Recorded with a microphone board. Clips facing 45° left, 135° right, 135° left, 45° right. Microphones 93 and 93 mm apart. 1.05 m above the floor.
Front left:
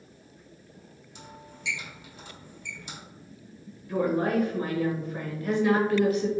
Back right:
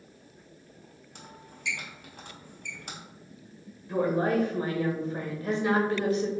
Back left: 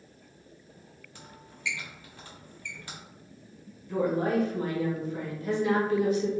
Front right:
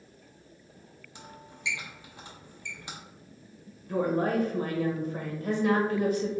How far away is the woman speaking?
About 1.2 m.